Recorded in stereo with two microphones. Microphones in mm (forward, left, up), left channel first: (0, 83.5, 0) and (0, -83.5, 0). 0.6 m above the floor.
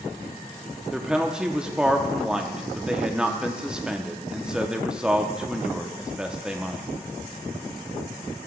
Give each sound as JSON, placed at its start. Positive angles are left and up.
{"t": 0.9, "sound": "a woman speaking", "side_deg": -5, "distance_m": 0.6}